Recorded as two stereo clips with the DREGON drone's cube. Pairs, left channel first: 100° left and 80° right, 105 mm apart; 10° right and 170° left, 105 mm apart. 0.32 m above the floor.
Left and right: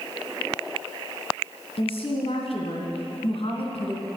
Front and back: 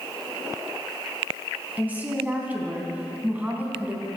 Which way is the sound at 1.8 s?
95° left.